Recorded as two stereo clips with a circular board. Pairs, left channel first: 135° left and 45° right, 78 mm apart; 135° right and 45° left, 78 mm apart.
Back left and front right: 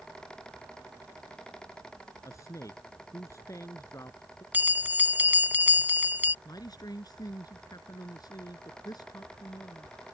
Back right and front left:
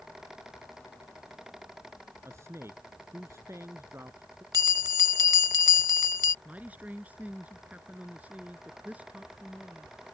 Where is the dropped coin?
I don't hear a dropped coin.